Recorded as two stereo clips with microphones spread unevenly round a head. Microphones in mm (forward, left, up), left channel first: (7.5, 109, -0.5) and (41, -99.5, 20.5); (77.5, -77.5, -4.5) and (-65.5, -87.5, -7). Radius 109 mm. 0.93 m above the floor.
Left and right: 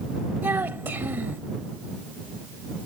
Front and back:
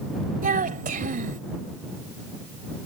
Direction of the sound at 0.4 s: 160° right.